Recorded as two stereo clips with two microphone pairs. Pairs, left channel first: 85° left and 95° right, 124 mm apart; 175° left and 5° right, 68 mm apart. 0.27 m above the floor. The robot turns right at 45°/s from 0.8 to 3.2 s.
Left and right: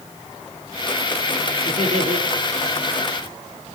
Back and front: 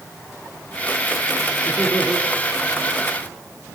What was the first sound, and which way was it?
Laughter, 110° right.